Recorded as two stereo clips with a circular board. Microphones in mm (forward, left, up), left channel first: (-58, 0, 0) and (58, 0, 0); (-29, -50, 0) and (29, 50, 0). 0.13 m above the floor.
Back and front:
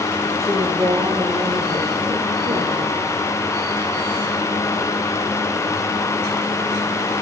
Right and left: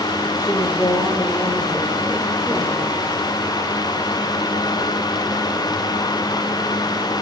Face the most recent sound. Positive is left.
turn(degrees=-25)